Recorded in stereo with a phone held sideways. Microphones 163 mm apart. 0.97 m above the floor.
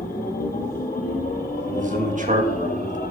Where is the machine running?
60° left (ahead or behind), 0.9 m.